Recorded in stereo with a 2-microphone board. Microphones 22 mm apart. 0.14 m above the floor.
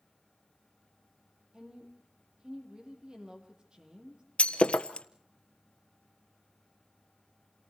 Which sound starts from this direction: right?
A woman speaking, at 1.5 s.